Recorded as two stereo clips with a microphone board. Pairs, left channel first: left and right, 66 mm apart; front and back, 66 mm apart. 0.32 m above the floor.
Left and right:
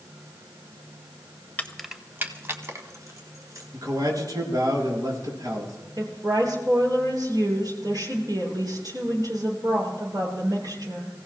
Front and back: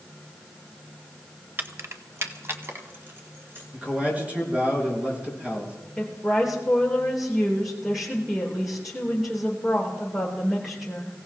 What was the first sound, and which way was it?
Keys jangling, 140° left.